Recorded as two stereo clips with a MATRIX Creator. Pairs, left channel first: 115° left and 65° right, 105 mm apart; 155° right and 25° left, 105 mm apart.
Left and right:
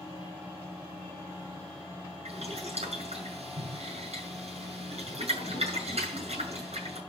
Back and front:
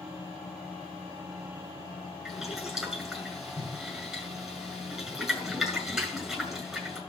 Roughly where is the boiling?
Ahead right.